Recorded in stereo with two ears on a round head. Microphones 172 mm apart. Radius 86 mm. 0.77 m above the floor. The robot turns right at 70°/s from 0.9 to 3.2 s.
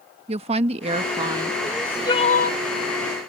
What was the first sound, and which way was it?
A woman speaking, 70° right.